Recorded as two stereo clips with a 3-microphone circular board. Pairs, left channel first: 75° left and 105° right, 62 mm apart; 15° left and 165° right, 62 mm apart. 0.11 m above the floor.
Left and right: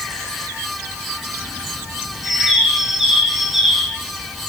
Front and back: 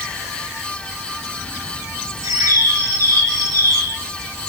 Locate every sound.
2.2 s a bird: 170° left, 3.5 m